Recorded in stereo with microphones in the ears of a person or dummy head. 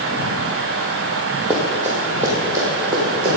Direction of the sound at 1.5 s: 5° right (ahead or behind).